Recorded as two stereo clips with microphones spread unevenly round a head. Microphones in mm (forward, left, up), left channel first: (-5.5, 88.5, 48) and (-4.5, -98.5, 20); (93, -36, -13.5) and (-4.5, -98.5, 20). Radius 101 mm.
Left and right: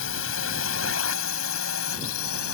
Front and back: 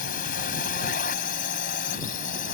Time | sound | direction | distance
0.0 | a drone | 65° left | ?